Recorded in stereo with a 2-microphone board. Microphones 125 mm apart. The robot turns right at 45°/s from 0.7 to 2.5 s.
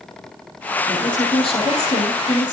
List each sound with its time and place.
0.9 s a woman speaking: 20° left, 7 m; by 2.5 s 95° left, 7 m